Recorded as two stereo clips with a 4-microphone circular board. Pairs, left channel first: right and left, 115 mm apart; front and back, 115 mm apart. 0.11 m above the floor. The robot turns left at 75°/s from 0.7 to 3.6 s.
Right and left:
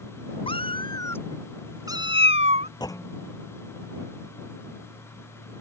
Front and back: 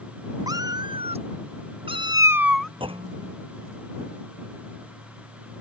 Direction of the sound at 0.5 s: 125° right.